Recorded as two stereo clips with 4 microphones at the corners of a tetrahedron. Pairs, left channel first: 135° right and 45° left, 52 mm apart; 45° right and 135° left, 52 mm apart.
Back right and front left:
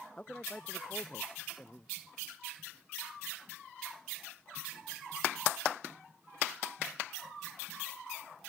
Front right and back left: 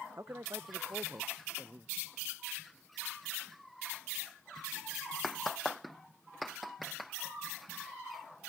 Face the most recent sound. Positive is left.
turn(degrees=165)